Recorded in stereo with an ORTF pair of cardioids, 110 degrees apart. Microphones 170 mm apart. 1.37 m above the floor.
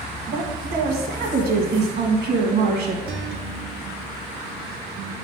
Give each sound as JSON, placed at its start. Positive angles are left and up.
{"t": 0.3, "sound": "a woman speaking", "azimuth_deg": -65, "distance_m": 1.7}
{"t": 3.1, "sound": "a guitar", "azimuth_deg": -65, "distance_m": 0.9}